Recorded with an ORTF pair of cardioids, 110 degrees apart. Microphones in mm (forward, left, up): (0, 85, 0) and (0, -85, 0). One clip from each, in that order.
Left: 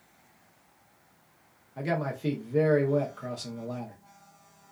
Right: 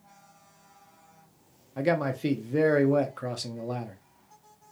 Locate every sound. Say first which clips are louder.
1.8 s a man speaking: right 5 dB; 25° right, 0.6 m